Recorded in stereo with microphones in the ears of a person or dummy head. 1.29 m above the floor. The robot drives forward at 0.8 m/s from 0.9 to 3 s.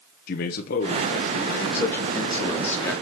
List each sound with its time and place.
0.3 s a man speaking: 55° left (ahead or behind), 0.9 m; by 2.2 s 40° left (ahead or behind), 1.1 m
1.7 s a man speaking: 15° left (ahead or behind), 1.7 m; by 2.9 s 10° left (ahead or behind), 2.5 m